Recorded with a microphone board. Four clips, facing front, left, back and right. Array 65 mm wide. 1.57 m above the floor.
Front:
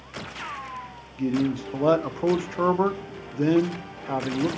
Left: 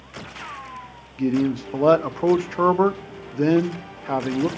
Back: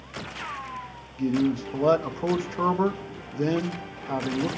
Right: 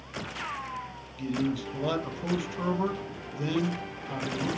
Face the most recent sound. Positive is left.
turn(degrees=85)